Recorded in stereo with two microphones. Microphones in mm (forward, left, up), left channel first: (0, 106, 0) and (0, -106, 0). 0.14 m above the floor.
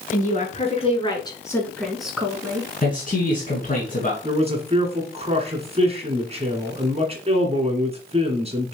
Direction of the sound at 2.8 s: 40° left (ahead or behind).